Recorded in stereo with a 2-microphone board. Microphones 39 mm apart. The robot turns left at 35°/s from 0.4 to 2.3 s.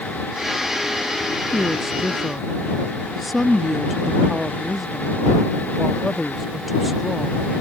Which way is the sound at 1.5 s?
20° right (ahead or behind).